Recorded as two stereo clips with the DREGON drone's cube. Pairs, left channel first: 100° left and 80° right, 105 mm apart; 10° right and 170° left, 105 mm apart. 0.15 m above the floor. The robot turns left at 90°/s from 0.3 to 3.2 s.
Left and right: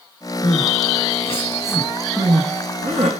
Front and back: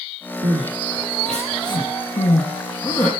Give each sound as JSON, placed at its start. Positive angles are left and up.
{"t": 0.4, "sound": "crying", "azimuth_deg": 150, "distance_m": 5.0}